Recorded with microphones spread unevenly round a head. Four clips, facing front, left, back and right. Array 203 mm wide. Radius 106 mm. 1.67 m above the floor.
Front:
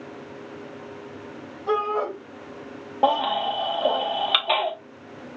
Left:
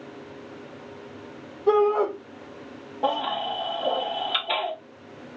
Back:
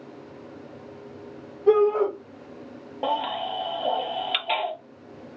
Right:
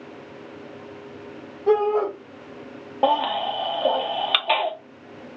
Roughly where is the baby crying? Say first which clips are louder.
Right 5 dB, front 5 dB; ahead right.